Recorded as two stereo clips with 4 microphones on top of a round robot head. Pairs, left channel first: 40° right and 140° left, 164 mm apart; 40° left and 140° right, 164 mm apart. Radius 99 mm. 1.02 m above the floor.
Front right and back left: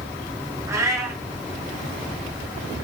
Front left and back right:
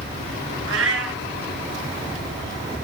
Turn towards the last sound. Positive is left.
turn(degrees=-150)